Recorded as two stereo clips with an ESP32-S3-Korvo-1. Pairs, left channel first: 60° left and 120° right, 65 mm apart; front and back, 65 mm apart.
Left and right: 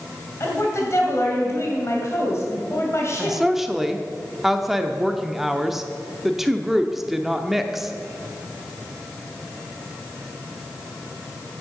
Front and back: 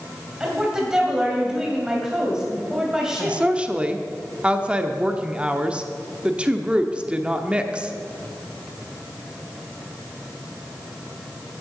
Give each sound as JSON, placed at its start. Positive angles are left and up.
{"t": 0.4, "sound": "a woman speaking", "azimuth_deg": 100, "distance_m": 2.5}
{"t": 3.2, "sound": "a woman speaking", "azimuth_deg": 165, "distance_m": 0.7}